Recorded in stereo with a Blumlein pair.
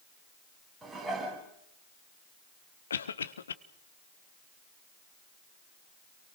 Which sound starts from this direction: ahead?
Dishes clattering, at 0.8 s.